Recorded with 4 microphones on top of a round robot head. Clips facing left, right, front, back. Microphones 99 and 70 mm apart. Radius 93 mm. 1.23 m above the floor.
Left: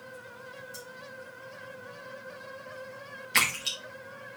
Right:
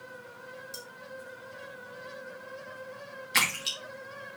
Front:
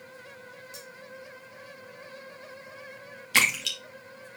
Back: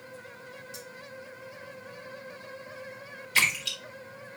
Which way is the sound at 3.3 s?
5° right.